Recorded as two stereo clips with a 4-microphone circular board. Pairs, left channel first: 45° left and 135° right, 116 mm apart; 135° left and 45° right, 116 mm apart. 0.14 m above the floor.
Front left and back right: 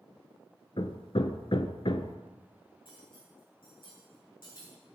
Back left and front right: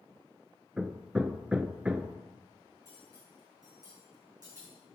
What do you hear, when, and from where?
0.8 s hammering: 30° left, 0.6 m
2.9 s cutlery clinking: 5° left, 5.5 m